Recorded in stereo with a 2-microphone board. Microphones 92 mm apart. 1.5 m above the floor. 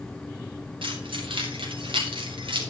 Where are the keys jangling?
80° right, 3.5 m.